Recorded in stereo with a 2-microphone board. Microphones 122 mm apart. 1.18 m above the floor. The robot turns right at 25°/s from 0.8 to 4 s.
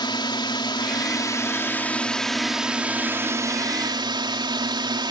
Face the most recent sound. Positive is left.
turn(degrees=-140)